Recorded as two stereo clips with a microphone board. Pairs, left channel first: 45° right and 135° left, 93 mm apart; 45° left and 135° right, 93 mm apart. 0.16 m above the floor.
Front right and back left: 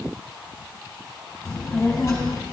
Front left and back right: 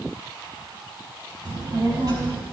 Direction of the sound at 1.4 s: 100° right.